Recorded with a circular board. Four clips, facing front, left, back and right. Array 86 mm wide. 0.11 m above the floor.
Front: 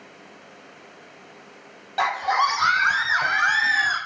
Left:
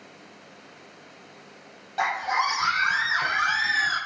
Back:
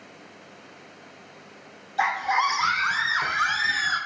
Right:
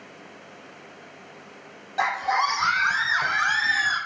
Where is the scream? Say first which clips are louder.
Right 2 dB, front 2 dB; straight ahead, 2.5 m; by 4.0 s 5° right, 5.5 m.